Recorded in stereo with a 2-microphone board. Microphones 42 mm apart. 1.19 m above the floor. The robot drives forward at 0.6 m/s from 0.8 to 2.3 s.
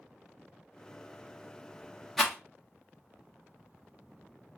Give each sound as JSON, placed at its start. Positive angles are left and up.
{"t": 2.2, "sound": "a rattle", "side_deg": 5, "distance_m": 0.9}